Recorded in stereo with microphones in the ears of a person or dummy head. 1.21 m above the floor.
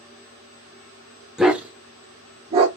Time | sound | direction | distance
1.4 | a dog barking | centre (ahead or behind) | 1.0 m